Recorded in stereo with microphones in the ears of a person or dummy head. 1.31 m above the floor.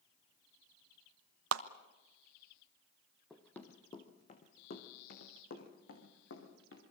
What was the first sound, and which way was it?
A clap, 80° right.